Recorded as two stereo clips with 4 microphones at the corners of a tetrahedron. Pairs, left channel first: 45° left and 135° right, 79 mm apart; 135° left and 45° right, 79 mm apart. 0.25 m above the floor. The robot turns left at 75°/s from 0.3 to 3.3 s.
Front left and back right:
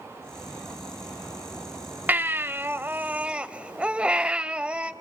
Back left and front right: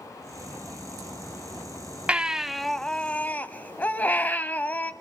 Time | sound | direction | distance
2.1 | a baby crying | 100° right | 0.5 m